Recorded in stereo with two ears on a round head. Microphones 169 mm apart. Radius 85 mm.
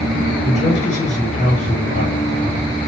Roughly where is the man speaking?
Left.